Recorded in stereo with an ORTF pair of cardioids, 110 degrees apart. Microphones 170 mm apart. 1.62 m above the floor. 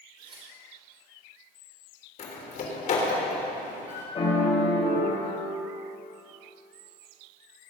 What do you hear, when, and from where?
0.2 s tearing paper: 30° right, 4 m
2.2 s a door slam: 50° left, 3.5 m
4.2 s a piano: 35° left, 4 m